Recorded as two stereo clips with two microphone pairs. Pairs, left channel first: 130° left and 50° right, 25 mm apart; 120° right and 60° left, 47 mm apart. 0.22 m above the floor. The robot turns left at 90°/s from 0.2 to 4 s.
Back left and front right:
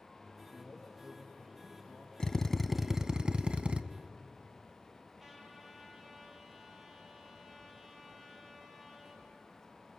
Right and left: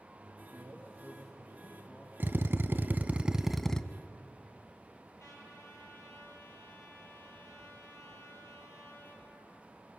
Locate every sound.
0.5 s a man speaking: 90° left, 6 m; by 2.1 s 55° right, 6 m
2.2 s a drill: 90° left, 0.6 m; by 3.8 s 55° right, 0.6 m
5.2 s a trumpet: 130° right, 4 m